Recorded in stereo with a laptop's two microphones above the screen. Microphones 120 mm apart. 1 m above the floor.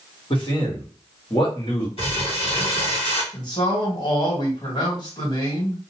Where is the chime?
No chime in this recording.